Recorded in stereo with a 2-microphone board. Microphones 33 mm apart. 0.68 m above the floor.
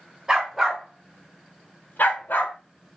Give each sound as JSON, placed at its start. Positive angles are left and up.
{"t": 0.3, "sound": "a dog barking", "side_deg": -20, "distance_m": 1.3}